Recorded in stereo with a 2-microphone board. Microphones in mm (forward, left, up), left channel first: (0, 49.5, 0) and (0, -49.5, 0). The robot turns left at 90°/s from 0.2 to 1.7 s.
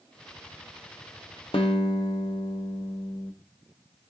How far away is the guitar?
About 0.7 m.